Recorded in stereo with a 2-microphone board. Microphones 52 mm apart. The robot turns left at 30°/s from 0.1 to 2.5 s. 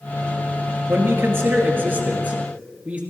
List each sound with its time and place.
0.9 s a man speaking: 95° right, 2 m; by 3.0 s 145° right, 2 m